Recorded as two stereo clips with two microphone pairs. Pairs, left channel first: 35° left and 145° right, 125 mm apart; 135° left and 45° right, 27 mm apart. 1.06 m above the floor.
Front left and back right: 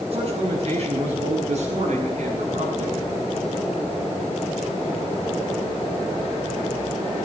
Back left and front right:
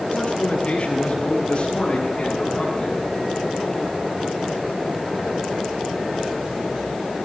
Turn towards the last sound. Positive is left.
turn(degrees=-160)